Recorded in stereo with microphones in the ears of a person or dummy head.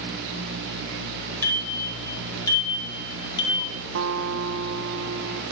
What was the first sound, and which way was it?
A bicycle bell, 10° left (ahead or behind).